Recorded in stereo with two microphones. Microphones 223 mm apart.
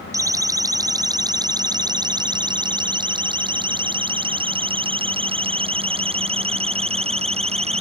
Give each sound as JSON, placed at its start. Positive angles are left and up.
{"t": 0.1, "sound": "a siren", "side_deg": -15}